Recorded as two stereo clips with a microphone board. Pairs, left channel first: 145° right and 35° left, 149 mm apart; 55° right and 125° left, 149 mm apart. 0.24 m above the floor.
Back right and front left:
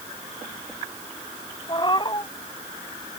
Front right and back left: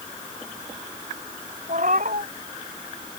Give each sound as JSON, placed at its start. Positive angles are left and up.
{"t": 1.7, "sound": "a cat meowing", "azimuth_deg": 155}